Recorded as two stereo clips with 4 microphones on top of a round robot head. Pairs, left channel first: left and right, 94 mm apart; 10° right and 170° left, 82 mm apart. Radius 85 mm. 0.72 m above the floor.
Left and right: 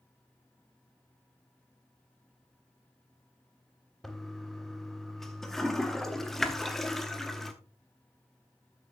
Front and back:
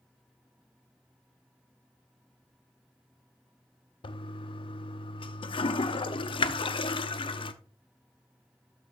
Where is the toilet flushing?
5° left, 0.7 m.